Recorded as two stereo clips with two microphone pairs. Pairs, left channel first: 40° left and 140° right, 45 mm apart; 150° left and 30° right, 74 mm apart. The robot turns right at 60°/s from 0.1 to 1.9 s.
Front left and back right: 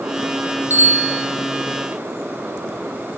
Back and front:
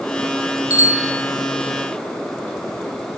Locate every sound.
0.7 s a bicycle bell: 170° right, 4 m; by 1.2 s 140° right, 4 m